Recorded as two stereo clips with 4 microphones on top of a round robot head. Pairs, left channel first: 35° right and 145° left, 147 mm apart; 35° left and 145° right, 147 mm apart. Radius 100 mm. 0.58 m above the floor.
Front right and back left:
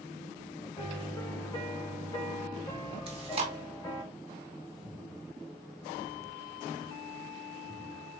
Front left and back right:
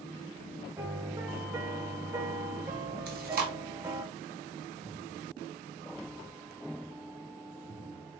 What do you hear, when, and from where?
0.8 s a piano: 90° right, 0.8 m
3.1 s chewing: 165° right, 0.7 m